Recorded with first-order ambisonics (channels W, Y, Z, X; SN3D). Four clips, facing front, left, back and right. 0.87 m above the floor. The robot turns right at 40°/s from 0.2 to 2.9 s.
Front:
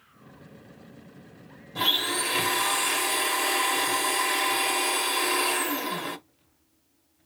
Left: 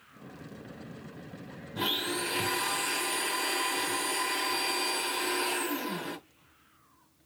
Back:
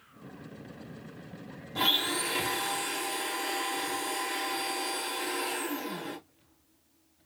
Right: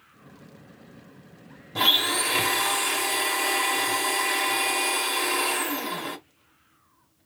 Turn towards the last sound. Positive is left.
turn(degrees=-45)